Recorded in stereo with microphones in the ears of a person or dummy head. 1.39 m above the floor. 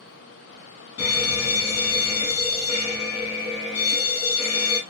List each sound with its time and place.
1.0 s a fire alarm: 65° left (ahead or behind), 3.5 m